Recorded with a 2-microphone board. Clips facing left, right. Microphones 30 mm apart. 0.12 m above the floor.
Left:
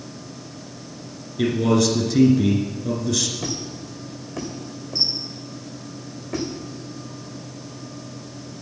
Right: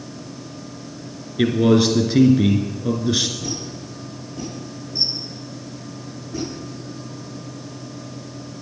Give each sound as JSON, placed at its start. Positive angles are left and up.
{"t": 1.4, "sound": "a man speaking", "side_deg": -30, "distance_m": 1.5}
{"t": 3.4, "sound": "a squeak", "side_deg": 80, "distance_m": 2.5}